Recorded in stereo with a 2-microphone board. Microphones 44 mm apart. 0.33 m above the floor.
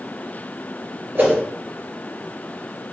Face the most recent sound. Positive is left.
turn(degrees=-45)  # may be behind; listen again after turning